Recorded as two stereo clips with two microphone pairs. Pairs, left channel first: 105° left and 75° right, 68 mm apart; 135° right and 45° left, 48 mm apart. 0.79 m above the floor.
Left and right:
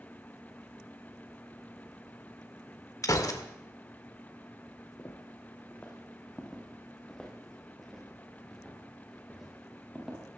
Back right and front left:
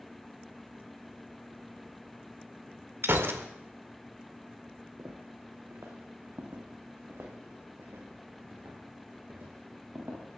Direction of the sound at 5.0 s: 55° left.